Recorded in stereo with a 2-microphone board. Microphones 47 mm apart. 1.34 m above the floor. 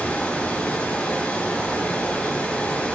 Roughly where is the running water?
Left.